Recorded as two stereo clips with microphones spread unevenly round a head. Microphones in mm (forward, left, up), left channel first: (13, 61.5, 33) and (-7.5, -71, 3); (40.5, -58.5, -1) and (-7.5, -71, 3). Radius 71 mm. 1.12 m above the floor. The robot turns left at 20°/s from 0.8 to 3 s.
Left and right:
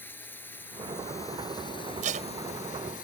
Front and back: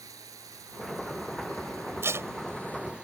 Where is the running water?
155° left; by 3.0 s 115° left.